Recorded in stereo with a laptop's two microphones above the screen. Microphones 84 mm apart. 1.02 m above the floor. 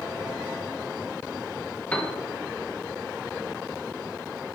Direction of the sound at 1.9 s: 15° left (ahead or behind).